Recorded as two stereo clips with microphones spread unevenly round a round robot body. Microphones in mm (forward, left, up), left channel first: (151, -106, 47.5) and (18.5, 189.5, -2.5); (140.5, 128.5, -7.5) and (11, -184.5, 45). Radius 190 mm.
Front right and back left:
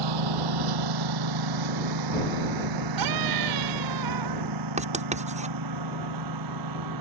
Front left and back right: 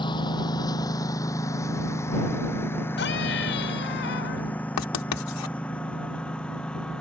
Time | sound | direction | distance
0.0 | a lawn mower | 150° left | ?
3.0 | a scream | 130° left | ?
4.8 | writing | 45° left | ?